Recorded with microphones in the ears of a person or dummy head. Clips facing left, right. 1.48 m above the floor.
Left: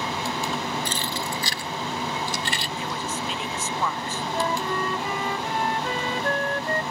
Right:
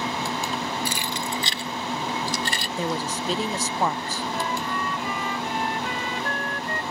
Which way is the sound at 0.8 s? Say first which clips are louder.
Even; 10° right (ahead or behind).